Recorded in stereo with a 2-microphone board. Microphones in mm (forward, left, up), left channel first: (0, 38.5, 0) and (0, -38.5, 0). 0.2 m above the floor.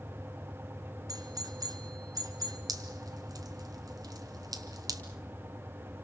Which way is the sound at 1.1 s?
55° right (ahead or behind).